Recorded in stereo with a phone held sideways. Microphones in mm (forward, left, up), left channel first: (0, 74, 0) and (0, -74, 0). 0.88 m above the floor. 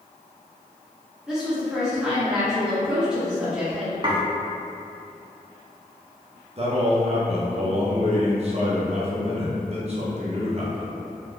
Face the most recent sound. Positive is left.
turn(degrees=-45)  # may be behind; listen again after turning